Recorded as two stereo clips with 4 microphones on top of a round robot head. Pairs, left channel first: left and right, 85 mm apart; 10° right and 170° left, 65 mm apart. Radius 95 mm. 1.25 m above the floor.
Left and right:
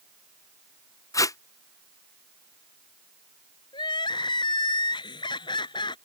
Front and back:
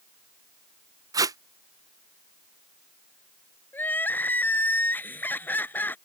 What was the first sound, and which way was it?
Tape being pulled, 140° left.